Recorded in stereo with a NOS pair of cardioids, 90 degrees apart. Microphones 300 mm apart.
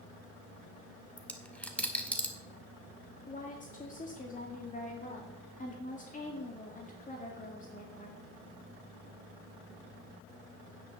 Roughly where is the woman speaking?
Ahead left.